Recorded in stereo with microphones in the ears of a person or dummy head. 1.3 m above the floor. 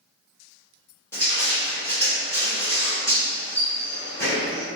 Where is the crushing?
15° left (ahead or behind), 1.2 m.